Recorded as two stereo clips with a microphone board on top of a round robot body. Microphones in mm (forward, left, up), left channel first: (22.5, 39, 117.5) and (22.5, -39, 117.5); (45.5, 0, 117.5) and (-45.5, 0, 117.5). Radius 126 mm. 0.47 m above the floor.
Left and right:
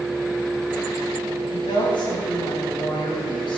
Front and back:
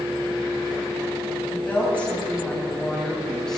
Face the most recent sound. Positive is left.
turn(degrees=85)